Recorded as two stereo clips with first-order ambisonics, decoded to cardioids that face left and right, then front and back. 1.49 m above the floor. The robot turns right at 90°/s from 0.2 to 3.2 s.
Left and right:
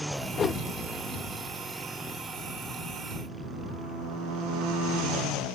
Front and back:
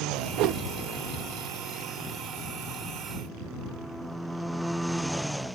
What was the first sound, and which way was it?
A whoosh, 150° left.